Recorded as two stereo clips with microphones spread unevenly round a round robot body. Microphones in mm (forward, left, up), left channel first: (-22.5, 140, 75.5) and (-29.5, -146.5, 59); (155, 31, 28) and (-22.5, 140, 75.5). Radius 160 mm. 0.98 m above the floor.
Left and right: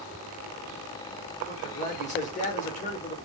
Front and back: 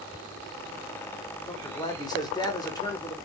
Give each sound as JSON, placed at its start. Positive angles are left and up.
{"t": 1.5, "sound": "a man speaking", "azimuth_deg": 25, "distance_m": 1.0}